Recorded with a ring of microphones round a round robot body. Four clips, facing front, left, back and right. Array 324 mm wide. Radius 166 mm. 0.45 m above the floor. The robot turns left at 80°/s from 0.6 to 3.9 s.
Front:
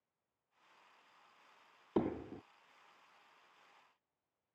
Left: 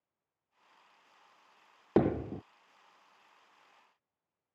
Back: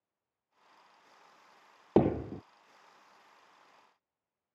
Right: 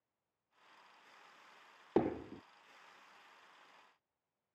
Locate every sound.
2.0 s hammering: 150° left; by 2.4 s 115° left